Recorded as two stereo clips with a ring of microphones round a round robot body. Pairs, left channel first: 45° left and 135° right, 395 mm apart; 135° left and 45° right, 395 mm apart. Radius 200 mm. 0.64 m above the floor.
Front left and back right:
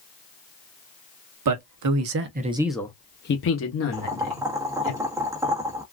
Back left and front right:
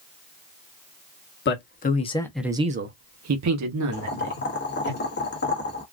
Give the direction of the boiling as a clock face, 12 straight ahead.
7 o'clock.